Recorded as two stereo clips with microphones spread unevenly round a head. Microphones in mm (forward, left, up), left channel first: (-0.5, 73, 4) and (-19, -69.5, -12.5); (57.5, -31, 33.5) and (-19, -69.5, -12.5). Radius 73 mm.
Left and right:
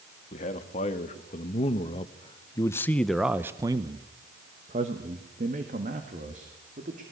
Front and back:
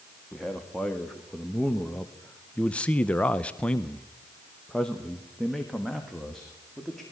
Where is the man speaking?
125° left, 2 m; by 7.0 s 65° right, 3 m.